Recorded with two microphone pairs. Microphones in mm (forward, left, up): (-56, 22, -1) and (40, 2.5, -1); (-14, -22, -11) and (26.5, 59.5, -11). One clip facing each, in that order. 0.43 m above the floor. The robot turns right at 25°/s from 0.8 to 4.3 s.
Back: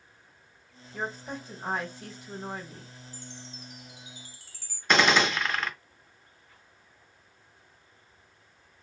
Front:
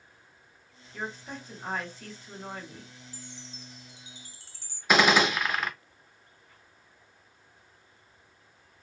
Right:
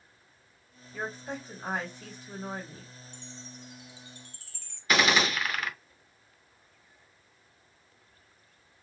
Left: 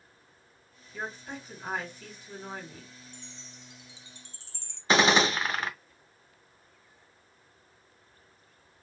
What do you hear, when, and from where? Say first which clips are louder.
0.9 s a woman speaking: back 3 dB, right 2 dB; 155° right, 1.2 m; by 2.9 s 110° right, 1.2 m
3.1 s a chime: back 2 dB, right 3 dB; 5° right, 0.6 m; by 4.8 s 25° left, 0.6 m
4.9 s a gunshot: front 1 dB, left 3 dB; 65° left, 0.5 m